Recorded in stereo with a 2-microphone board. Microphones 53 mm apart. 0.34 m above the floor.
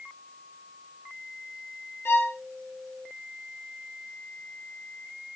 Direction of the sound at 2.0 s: 50° left (ahead or behind).